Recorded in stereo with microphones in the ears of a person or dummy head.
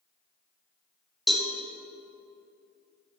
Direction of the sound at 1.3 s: 10° left (ahead or behind).